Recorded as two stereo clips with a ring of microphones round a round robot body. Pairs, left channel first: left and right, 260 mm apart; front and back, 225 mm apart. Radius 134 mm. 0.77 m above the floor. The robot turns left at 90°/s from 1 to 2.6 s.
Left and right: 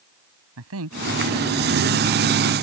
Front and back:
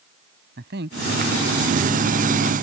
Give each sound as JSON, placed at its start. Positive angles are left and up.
{"t": 0.6, "sound": "a man speaking", "azimuth_deg": -125}